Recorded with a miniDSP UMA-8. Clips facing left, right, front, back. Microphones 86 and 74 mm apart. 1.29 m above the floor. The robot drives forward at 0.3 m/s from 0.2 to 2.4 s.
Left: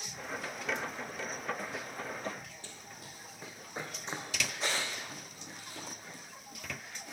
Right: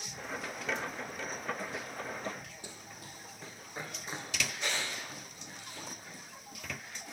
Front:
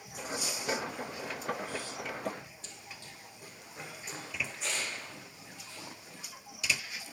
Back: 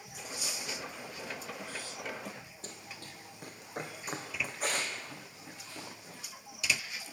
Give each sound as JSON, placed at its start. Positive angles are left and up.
{"t": 2.6, "sound": "running footsteps", "azimuth_deg": -160, "distance_m": 1.8}